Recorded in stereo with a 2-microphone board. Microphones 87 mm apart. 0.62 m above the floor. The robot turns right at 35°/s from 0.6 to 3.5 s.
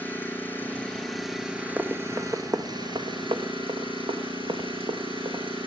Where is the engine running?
160° left, 7 m; by 5.7 s 100° right, 7 m.